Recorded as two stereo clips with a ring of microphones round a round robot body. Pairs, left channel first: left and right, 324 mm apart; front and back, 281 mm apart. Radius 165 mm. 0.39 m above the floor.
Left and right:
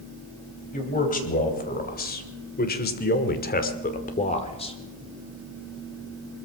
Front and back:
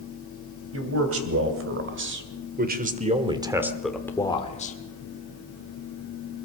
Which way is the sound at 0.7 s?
155° left.